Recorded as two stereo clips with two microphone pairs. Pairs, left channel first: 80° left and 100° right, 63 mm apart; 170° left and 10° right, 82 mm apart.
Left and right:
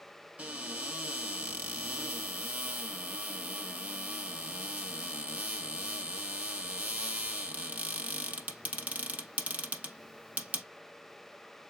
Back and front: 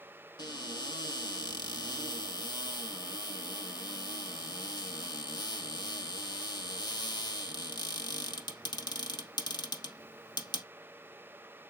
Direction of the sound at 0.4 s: 170° right.